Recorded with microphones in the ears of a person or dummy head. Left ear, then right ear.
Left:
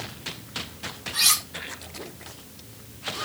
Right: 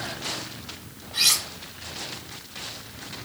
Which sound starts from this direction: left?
Cutlery clinking, at 1.1 s.